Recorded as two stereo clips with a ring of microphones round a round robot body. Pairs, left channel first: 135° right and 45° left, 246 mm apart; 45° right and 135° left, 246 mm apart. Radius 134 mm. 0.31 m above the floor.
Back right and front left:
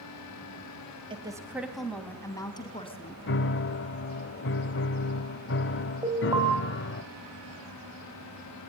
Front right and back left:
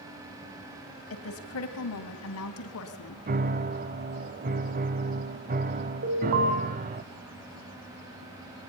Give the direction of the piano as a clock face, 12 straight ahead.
6 o'clock.